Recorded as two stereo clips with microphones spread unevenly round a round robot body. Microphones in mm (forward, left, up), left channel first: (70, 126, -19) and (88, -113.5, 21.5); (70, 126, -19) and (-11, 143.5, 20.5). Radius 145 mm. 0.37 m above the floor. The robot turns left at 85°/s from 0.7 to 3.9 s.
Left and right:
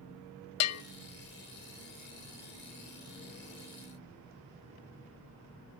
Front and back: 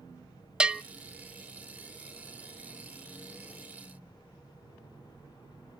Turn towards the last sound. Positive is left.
turn(degrees=170)